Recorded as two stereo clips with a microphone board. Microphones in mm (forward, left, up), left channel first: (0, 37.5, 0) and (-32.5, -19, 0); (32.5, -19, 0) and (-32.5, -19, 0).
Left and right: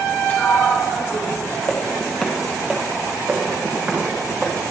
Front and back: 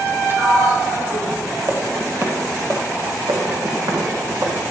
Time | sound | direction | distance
0.3 | a sliding door | 125° left | 2 m
1.7 | footsteps | 125° left | 2 m
3.3 | footsteps | 170° left | 3 m